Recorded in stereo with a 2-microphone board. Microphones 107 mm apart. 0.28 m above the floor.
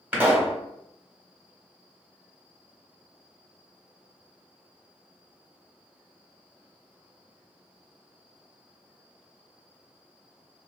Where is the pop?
15° right (ahead or behind), 1.2 m.